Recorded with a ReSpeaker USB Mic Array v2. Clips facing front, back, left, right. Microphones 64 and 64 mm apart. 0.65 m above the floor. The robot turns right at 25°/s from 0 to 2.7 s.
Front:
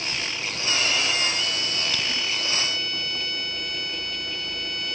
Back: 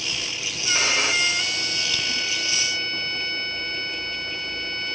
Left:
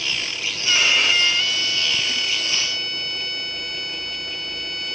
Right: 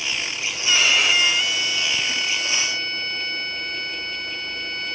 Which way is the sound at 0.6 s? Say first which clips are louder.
Back 3 dB, even; 170° left.